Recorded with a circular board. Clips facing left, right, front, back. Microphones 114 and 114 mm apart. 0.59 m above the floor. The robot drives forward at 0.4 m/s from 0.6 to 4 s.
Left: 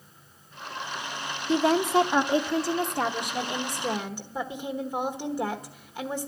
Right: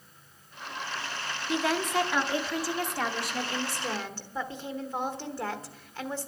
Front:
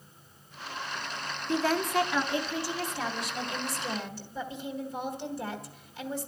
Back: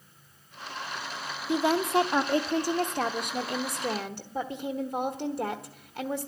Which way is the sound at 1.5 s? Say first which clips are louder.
Left 6 dB, back 3 dB; 115° left.